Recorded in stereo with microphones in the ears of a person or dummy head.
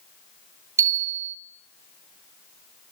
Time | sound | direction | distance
0.8 | a bicycle bell | 20° right (ahead or behind) | 3.5 m